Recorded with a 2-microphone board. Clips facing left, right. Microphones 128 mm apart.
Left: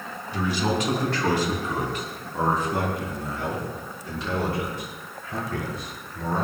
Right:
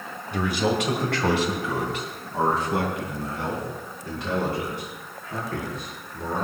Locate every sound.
0.3 s a man speaking: 60° right (ahead or behind), 2.5 m; by 6.5 s 55° right (ahead or behind), 9 m